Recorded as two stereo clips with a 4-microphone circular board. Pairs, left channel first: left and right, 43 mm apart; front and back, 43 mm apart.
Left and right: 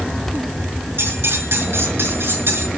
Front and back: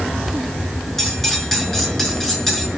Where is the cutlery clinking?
80° right, 5.5 m.